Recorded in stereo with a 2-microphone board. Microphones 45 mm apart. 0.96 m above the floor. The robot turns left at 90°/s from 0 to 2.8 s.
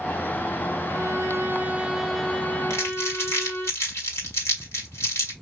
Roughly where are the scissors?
I don't hear scissors.